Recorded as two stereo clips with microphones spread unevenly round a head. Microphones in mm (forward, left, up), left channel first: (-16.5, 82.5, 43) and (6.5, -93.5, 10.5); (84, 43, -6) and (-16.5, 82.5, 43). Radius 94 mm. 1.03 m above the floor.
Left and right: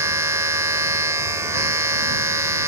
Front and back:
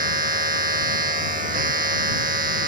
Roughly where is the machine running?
Behind.